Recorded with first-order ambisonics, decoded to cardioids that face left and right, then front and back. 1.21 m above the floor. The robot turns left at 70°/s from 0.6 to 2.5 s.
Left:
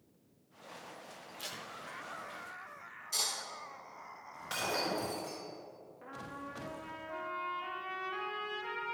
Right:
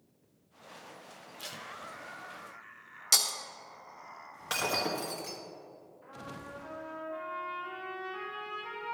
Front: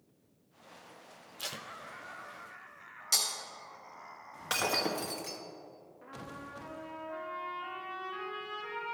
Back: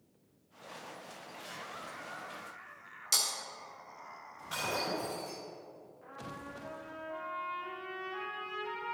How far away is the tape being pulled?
About 0.5 m.